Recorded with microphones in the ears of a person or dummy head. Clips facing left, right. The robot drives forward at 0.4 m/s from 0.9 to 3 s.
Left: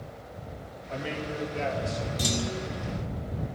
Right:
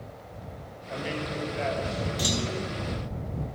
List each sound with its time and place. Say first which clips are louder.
0.9 s a man speaking: right 1 dB; centre (ahead or behind), 2.5 m
2.2 s a clunk: right 1 dB; 5° right (ahead or behind), 0.6 m